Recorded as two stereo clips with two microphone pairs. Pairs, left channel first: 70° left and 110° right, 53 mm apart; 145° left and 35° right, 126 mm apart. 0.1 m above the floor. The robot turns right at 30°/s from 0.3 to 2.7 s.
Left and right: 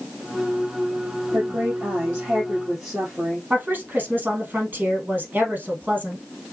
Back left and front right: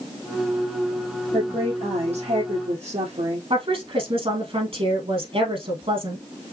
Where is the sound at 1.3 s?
70° right, 2.5 m; by 3.4 s 25° right, 2.5 m.